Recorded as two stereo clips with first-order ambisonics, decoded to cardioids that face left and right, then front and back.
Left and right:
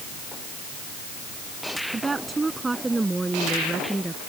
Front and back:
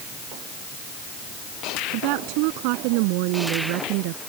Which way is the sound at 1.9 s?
165° right.